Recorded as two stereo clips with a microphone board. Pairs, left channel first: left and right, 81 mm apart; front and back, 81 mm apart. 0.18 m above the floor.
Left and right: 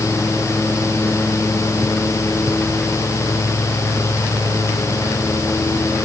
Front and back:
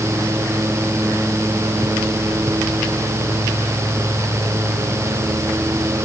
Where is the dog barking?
I don't hear a dog barking.